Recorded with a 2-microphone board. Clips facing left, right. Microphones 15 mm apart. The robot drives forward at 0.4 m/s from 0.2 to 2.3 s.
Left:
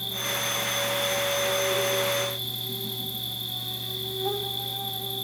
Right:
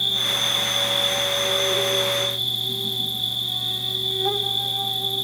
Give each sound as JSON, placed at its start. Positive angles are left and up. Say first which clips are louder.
{"t": 0.0, "sound": "an insect", "louder": "right 8 dB", "side_deg": -45, "distance_m": 1.3}